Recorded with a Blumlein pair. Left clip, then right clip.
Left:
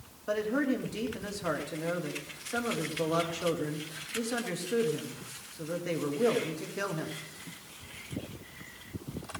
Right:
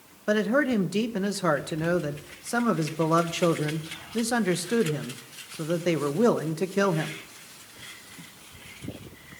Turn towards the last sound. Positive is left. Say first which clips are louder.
# right 6 dB
turn(degrees=-25)